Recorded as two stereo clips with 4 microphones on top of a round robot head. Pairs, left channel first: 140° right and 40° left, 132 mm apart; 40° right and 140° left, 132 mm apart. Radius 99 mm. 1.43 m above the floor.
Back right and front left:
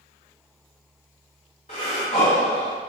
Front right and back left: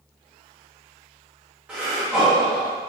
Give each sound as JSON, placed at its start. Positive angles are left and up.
{"t": 1.7, "sound": "breathing", "azimuth_deg": -145, "distance_m": 0.6}